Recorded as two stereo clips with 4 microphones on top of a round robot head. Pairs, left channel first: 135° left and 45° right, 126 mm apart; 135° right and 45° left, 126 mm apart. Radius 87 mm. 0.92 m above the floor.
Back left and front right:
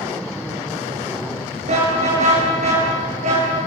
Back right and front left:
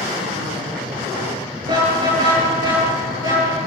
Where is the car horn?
10° right, 8 m; by 3.6 s 15° right, 10 m.